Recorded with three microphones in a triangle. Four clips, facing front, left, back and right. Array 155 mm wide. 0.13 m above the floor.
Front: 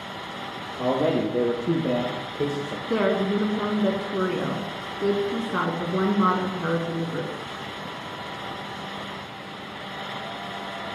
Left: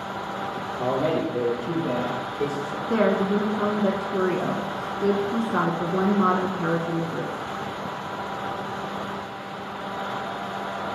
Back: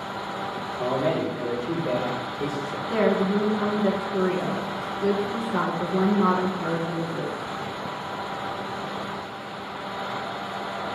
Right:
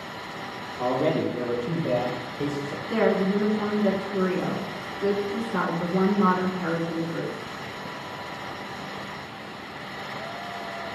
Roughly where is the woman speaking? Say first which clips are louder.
Left 1 dB, back 1 dB; ahead left.